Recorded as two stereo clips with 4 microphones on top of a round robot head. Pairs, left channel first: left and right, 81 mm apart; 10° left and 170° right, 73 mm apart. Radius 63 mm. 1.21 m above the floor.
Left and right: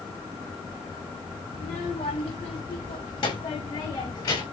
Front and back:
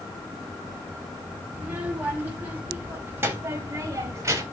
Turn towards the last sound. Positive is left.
turn(degrees=145)